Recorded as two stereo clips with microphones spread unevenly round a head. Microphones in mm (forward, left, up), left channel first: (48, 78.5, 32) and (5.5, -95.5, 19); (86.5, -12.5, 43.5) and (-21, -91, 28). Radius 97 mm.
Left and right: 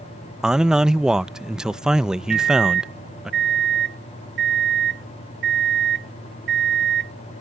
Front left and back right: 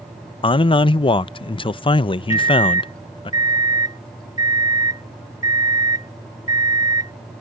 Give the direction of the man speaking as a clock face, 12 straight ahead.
1 o'clock.